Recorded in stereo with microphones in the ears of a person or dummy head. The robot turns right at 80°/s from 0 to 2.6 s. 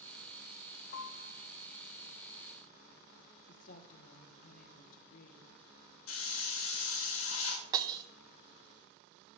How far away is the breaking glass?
About 0.6 m.